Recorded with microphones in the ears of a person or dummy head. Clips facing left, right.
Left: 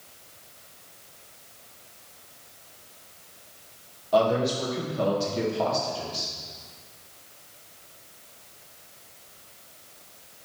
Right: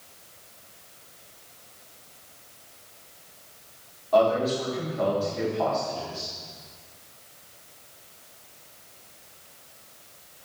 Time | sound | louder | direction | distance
4.1 | a man speaking | right 1 dB | 15° left (ahead or behind) | 1.6 m